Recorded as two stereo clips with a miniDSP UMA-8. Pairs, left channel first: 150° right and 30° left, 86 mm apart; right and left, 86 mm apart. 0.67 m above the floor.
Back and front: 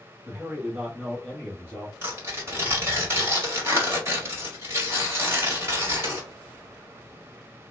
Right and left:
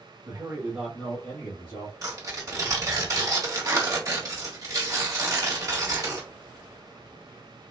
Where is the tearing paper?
75° left, 1.3 m.